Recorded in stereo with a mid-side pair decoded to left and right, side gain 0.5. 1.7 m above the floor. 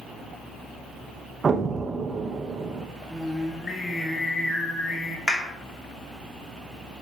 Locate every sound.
1.4 s an explosion: 35° right, 0.9 m
3.1 s singing: 20° left, 1.6 m
5.3 s a clap: 25° left, 2.5 m